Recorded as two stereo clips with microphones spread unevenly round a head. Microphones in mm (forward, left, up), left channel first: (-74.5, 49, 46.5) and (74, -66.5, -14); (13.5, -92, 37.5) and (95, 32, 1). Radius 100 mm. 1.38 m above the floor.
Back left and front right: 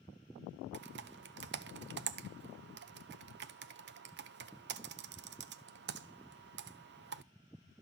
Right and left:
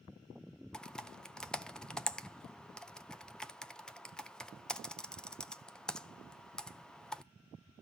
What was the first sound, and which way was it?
Typing on a keyboard, 35° right.